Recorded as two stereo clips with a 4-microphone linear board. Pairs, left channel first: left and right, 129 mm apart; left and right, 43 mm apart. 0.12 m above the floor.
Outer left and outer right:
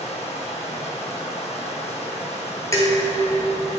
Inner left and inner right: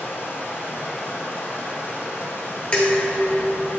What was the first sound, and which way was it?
Running water, 55° left (ahead or behind).